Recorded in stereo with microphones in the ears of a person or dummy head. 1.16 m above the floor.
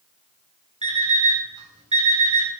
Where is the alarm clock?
25° right (ahead or behind), 1.7 m.